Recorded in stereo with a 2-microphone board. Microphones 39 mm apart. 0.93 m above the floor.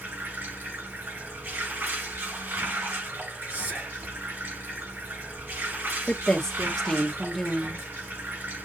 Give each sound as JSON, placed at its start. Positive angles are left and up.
{"t": 0.0, "sound": "running water", "side_deg": -65, "distance_m": 4.5}
{"t": 3.5, "sound": "whispering", "side_deg": -45, "distance_m": 3.0}
{"t": 6.1, "sound": "a woman speaking", "side_deg": 15, "distance_m": 1.6}